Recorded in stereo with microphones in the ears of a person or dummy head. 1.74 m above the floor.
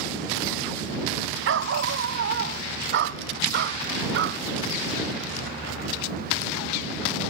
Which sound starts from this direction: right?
A dog barking, at 1.4 s.